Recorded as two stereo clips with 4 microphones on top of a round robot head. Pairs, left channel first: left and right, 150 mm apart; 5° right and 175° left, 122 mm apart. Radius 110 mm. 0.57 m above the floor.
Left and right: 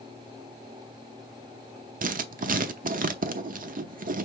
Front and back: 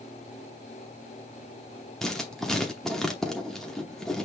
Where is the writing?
90° right, 0.8 m.